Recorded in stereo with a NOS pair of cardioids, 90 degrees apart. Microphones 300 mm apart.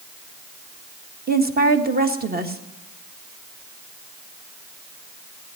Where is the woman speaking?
30° right, 1.6 m.